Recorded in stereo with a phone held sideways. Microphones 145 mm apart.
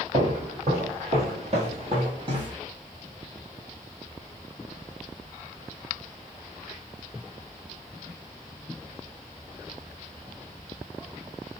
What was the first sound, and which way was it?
Footsteps, 55° right (ahead or behind).